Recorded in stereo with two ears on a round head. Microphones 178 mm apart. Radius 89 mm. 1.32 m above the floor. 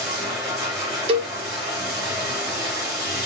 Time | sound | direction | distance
0.0 | running water | 5° right (ahead or behind) | 4 m
1.1 | a cowbell | 30° right (ahead or behind) | 0.7 m